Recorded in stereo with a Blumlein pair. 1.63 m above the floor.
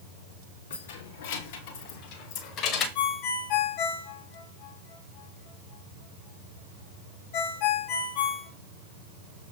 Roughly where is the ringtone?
Ahead left.